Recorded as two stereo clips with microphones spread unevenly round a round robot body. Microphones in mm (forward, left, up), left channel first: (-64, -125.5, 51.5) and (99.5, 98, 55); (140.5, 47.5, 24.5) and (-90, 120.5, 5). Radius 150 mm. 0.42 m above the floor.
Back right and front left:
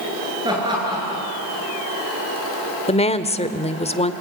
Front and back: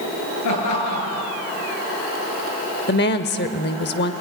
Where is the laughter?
20° right, 9.5 m.